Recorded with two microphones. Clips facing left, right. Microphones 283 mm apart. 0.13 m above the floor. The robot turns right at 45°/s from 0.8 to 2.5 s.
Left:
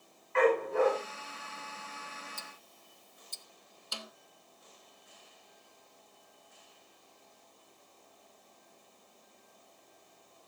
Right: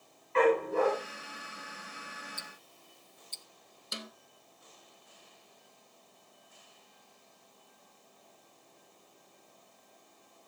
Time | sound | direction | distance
0.3 | a dog barking | 40° right (ahead or behind) | 7.5 m
2.4 | ticking | 55° left (ahead or behind) | 0.6 m
3.9 | a snare drum | 20° right (ahead or behind) | 0.9 m